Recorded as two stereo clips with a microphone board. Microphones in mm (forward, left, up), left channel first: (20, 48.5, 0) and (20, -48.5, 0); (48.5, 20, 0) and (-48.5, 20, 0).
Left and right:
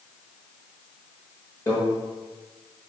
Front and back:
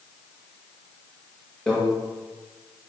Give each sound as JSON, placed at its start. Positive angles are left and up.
{"t": 1.7, "sound": "a microwave", "azimuth_deg": 65, "distance_m": 0.8}